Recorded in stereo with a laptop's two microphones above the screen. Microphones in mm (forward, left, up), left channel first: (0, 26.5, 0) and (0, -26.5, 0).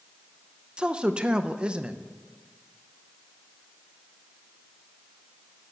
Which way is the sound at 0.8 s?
20° right (ahead or behind).